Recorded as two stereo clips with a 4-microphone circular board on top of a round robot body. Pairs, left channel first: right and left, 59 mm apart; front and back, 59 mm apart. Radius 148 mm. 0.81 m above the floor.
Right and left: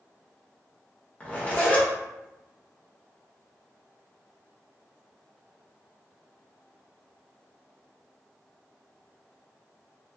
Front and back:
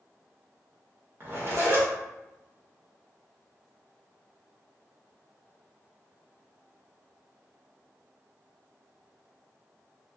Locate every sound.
1.2 s a zipper: 145° right, 1.6 m